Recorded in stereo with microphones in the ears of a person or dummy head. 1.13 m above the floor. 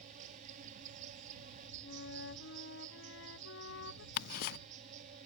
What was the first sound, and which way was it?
An insect, 45° right (ahead or behind).